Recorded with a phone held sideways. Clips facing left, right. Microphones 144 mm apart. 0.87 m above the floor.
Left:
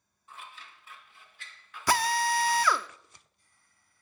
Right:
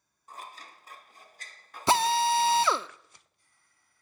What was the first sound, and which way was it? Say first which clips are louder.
Scissors: right 3 dB; 40° right (ahead or behind).